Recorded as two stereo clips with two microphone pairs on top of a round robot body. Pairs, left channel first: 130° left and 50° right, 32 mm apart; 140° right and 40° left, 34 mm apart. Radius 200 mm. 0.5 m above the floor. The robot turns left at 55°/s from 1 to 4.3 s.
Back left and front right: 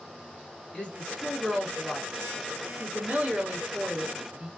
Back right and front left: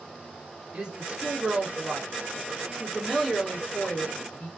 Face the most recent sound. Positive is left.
turn(degrees=-115)